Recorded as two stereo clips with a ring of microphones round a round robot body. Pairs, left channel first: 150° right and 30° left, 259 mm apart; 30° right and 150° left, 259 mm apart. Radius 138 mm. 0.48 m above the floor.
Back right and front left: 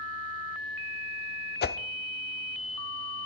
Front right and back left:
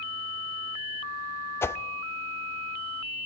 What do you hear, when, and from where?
1.6 s a whoosh: 110° right, 1.0 m